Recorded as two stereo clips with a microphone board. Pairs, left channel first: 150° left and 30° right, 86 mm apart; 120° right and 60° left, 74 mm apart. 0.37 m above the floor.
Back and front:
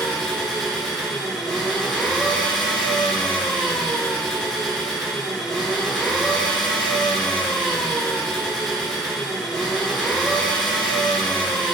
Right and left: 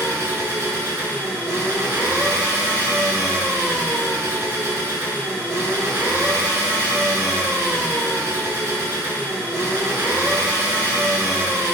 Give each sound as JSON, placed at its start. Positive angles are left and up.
{"t": 0.0, "sound": "an engine running", "azimuth_deg": 70, "distance_m": 0.8}